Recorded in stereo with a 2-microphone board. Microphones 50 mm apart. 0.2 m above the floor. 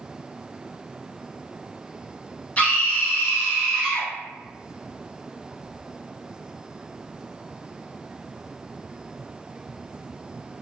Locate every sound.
2.6 s a scream: 30° left (ahead or behind), 1.2 m; by 4.1 s 15° left (ahead or behind), 2.5 m